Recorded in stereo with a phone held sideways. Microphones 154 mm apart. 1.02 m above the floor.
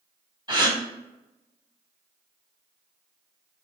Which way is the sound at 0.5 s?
30° right (ahead or behind).